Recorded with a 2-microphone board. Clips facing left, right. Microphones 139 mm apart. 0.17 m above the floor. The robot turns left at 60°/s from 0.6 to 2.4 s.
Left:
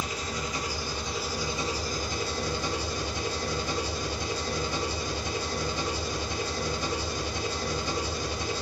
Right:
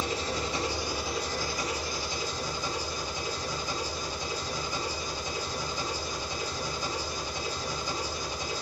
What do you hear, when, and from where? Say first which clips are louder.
0.0 s an engine running: right 2 dB; 150° right, 0.9 m; by 8.6 s 105° left, 0.9 m